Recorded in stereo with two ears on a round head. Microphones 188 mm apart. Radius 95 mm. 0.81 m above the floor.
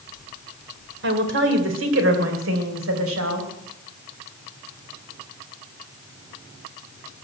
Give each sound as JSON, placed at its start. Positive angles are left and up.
{"t": 1.0, "sound": "a woman speaking", "side_deg": -60, "distance_m": 2.5}